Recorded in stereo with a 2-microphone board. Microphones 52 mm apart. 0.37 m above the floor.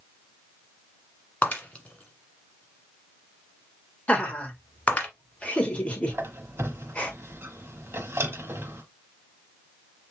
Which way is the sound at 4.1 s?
25° left (ahead or behind).